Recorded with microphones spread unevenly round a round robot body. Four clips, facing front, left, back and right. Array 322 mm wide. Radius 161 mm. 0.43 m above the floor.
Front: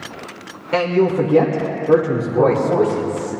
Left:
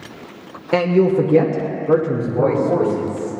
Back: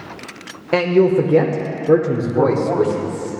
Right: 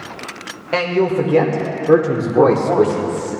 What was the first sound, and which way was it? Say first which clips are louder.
A man speaking: left 2 dB, back 2 dB; 150° left.